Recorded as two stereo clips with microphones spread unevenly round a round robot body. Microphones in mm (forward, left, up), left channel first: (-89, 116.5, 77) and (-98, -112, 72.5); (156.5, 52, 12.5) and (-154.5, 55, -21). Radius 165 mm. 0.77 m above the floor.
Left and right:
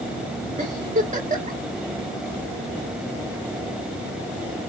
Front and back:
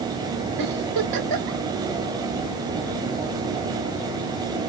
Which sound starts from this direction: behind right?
A giggle, at 0.6 s.